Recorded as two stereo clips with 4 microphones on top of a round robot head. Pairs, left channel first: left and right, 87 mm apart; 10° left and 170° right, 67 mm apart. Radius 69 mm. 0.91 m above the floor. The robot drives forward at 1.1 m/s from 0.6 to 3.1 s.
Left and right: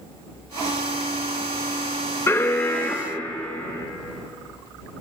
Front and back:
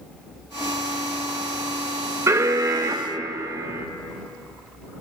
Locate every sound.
2.3 s an alarm: 150° left, 1.3 m; by 3.9 s 165° left, 2 m